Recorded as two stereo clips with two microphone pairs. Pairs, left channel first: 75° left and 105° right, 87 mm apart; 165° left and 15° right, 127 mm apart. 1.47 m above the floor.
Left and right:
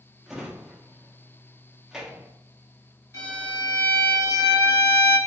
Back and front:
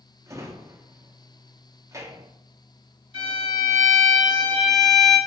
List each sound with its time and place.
0.3 s a drawer: 30° right, 0.6 m
3.1 s a violin: 130° left, 1.7 m